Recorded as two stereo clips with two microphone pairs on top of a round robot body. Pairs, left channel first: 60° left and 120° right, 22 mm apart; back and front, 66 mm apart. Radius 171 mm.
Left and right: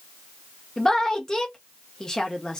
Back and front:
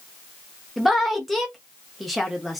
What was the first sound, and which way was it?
A woman speaking, 75° left.